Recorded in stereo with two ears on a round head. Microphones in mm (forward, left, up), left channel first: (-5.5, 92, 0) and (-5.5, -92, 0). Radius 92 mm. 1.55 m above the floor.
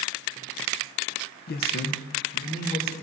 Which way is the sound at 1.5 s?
45° left (ahead or behind).